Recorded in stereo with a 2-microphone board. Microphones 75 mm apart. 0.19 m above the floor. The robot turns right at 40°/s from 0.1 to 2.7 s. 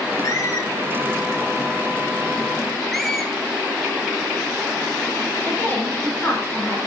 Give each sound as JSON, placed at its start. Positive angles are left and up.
{"t": 0.2, "sound": "a squeak", "side_deg": 45, "distance_m": 2.5}
{"t": 2.9, "sound": "a squeak", "side_deg": 5, "distance_m": 2.0}
{"t": 5.4, "sound": "a woman speaking", "side_deg": 30, "distance_m": 7.0}